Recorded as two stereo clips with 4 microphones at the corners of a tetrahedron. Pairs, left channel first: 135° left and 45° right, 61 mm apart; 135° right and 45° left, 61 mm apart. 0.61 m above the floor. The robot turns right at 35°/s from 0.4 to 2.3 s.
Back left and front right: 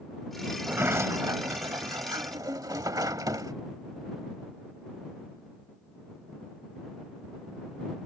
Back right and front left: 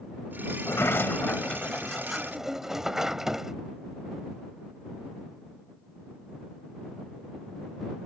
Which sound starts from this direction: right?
A sliding door, at 0.6 s.